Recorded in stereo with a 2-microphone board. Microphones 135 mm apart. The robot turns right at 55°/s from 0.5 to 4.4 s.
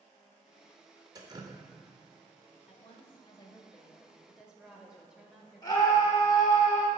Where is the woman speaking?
95° left, 1.4 m; by 6.6 s 170° right, 1.4 m.